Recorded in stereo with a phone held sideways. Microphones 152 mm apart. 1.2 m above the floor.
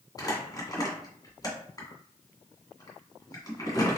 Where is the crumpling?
25° left (ahead or behind), 1.5 m.